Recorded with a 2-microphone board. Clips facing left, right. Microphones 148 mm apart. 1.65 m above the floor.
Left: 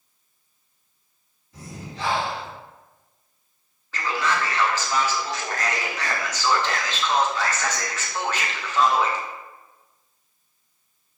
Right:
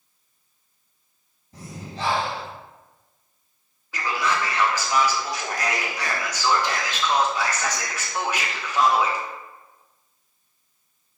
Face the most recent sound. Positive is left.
turn(degrees=-10)  # may be behind; listen again after turning